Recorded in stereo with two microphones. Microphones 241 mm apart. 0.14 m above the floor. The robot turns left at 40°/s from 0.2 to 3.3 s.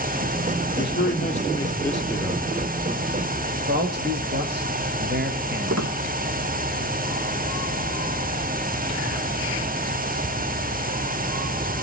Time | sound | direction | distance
0.8 | a man speaking | 50° left | 4 m
3.7 | a man speaking | 40° right (ahead or behind) | 3.5 m
5.7 | a squeak | 75° right (ahead or behind) | 1.2 m